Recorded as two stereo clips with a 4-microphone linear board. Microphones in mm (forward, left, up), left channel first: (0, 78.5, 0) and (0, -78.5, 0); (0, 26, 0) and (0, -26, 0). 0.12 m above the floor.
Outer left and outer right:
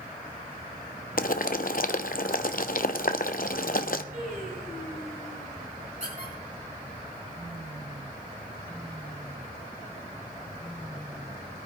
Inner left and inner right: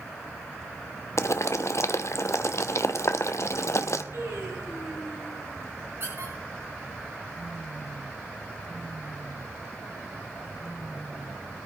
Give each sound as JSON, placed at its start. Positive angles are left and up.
{"t": 1.2, "sound": "boiling", "side_deg": 65, "distance_m": 0.6}
{"t": 4.1, "sound": "singing", "side_deg": -55, "distance_m": 6.0}
{"t": 6.0, "sound": "a squeak", "side_deg": -50, "distance_m": 5.5}